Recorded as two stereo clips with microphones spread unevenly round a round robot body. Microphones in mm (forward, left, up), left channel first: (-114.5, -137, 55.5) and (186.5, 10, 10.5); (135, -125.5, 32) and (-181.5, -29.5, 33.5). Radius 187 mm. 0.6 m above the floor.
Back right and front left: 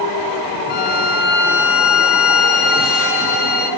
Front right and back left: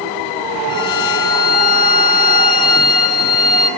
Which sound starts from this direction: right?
A violin, at 0.7 s.